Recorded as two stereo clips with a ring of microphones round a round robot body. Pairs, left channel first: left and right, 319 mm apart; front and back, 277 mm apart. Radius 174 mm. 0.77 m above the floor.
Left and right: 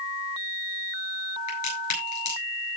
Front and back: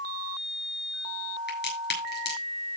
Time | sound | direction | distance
1.5 | a crack | 50° left | 8 m